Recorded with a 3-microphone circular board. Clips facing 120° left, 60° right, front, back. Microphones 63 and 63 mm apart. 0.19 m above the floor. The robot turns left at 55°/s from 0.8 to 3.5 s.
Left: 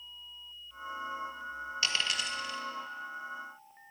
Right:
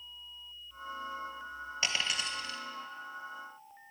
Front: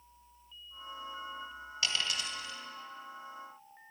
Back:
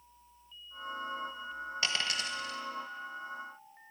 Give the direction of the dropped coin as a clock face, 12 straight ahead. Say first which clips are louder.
Even, even; 4 o'clock.